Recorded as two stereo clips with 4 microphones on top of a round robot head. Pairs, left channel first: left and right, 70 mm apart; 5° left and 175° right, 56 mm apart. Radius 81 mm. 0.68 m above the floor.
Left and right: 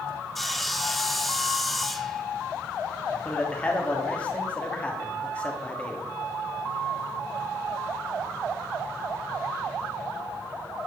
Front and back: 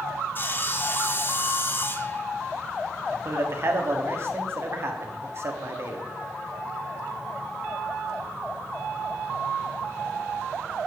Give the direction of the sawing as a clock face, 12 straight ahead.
12 o'clock.